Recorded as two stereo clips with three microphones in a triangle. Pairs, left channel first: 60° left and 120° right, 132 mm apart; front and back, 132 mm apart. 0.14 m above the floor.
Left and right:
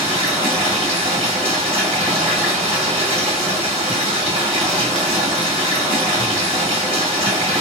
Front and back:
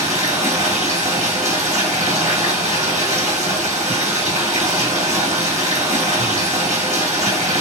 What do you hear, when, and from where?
0.0 s running water: 155° right, 1.8 m